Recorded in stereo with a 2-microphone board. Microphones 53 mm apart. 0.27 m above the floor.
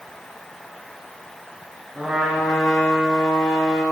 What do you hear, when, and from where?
1.9 s a trumpet: 10° right (ahead or behind), 3 m